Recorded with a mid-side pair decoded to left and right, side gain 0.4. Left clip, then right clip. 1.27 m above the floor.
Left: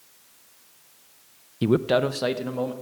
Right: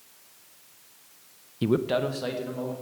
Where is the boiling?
I don't hear boiling.